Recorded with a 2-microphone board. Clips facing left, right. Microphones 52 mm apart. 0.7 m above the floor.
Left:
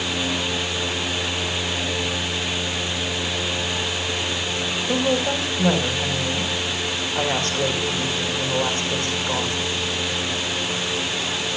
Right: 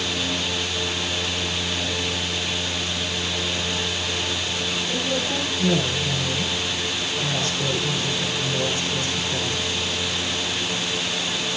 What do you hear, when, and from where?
4.9 s a woman speaking: 45° left (ahead or behind), 3.5 m